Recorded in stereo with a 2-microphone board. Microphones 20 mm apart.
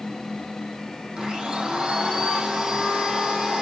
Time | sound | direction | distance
1.2 | a blender | 40° right (ahead or behind) | 3 m